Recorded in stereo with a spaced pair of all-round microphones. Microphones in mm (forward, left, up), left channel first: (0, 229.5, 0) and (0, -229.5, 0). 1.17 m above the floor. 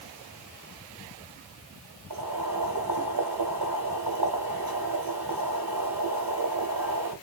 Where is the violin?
I don't hear a violin.